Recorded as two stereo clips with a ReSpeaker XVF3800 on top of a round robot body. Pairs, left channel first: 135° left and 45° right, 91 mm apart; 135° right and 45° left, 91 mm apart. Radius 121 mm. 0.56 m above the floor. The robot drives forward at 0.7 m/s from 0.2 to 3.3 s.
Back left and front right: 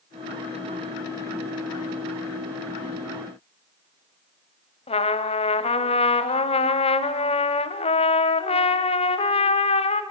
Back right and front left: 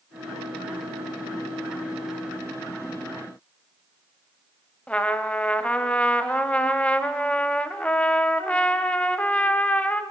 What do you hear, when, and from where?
4.9 s a trumpet: 145° left, 1.0 m